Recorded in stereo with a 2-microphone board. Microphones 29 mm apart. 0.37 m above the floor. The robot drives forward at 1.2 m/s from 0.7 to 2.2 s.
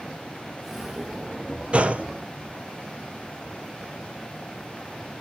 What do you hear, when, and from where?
1.7 s a gunshot: 45° right (ahead or behind), 1.5 m; by 2.1 s 55° right (ahead or behind), 1.3 m